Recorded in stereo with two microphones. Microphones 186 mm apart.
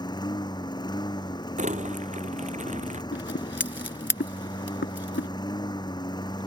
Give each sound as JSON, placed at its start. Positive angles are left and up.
{"t": 0.0, "sound": "a lawn mower", "side_deg": 25}
{"t": 1.6, "sound": "crumpling", "side_deg": -40}
{"t": 3.1, "sound": "scissors", "side_deg": 80}